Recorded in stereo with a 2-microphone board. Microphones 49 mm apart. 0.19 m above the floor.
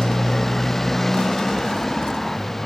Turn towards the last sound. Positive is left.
turn(degrees=5)  # may be behind; listen again after turning